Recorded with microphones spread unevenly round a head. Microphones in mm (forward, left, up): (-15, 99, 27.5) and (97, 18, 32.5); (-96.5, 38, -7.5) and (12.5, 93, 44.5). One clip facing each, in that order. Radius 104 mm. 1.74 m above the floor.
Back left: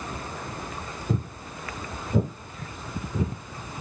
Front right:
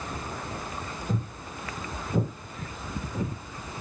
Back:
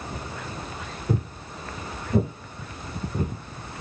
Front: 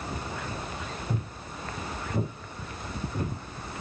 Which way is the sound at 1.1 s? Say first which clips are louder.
Back left 4 dB, back 6 dB; 145° right.